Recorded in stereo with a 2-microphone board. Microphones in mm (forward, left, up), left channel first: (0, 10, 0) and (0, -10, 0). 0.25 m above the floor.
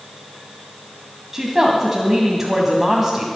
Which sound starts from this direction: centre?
A woman speaking, at 1.3 s.